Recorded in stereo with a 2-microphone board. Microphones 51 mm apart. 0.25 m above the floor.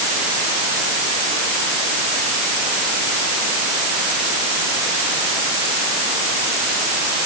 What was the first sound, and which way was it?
Only background noise.